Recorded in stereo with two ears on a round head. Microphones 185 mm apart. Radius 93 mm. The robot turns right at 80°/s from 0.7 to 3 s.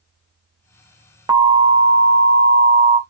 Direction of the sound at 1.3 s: 160° right.